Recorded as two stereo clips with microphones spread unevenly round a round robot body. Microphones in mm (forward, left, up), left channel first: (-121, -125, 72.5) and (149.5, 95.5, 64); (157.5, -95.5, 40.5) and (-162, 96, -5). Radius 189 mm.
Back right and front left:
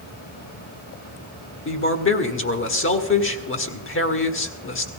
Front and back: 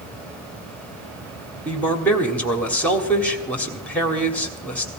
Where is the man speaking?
125° right, 1.5 m.